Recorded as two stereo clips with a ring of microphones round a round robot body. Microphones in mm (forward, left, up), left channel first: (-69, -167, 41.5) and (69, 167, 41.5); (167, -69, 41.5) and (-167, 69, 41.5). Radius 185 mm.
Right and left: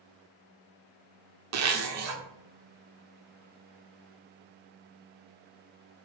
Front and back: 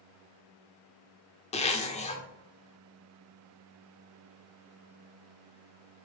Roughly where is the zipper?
Ahead left.